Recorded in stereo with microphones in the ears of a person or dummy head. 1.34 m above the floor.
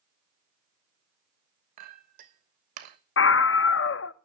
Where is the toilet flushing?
I don't hear a toilet flushing.